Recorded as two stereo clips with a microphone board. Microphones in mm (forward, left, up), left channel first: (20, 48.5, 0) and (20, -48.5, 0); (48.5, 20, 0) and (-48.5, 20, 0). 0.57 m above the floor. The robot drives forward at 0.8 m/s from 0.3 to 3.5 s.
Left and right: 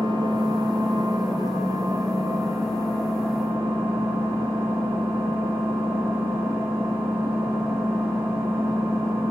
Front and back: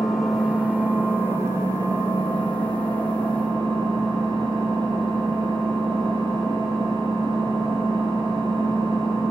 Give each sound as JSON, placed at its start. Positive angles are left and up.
{"t": 0.0, "sound": "an engine running", "azimuth_deg": -95, "distance_m": 1.7}